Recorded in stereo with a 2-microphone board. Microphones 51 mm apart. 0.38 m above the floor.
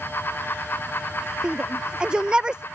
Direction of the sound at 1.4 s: 20° right (ahead or behind).